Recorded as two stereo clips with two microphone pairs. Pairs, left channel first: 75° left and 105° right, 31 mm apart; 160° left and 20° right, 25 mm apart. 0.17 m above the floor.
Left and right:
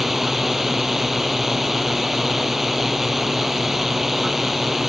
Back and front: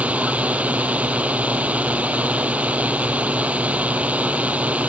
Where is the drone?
25° right.